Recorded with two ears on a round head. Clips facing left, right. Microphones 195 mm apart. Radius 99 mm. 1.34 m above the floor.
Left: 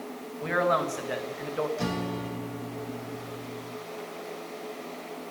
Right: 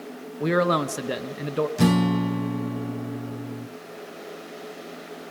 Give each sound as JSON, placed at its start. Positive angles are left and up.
{"t": 0.4, "sound": "a man speaking", "side_deg": -55, "distance_m": 1.8}
{"t": 1.8, "sound": "a guitar", "side_deg": -70, "distance_m": 1.0}